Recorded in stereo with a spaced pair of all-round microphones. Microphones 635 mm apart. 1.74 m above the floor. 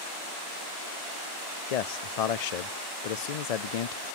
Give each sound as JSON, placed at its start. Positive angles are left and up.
{"t": 1.7, "sound": "a man speaking", "side_deg": 75, "distance_m": 0.6}